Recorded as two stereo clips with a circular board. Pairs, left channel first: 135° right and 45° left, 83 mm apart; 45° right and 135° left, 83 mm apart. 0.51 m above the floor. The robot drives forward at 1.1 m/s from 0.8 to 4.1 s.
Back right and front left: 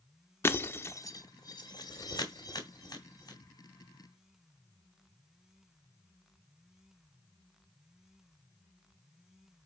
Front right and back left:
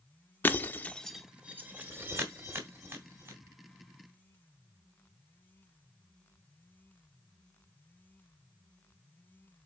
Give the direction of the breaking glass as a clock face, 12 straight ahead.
3 o'clock.